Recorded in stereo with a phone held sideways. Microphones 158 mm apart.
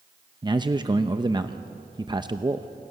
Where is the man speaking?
30° right (ahead or behind), 0.8 m.